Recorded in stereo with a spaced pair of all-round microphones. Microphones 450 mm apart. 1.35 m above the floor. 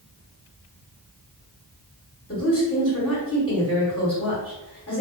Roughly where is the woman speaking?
Left.